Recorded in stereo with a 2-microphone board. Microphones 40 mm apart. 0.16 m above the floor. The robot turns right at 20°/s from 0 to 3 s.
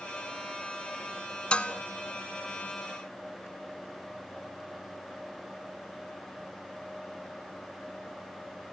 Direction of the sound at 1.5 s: 25° left (ahead or behind).